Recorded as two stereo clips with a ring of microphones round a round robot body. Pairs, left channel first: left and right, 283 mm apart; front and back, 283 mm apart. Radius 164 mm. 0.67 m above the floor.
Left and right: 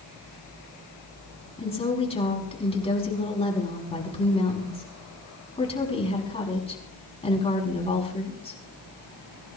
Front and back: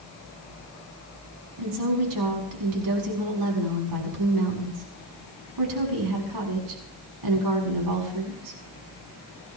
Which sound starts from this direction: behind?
A woman speaking, at 1.6 s.